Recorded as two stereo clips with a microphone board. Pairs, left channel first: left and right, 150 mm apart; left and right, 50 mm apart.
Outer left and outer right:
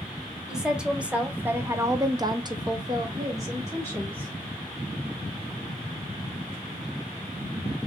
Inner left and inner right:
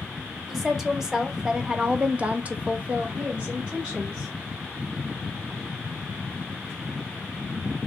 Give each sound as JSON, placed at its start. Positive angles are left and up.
{"t": 0.5, "sound": "a woman speaking", "side_deg": -5, "distance_m": 1.3}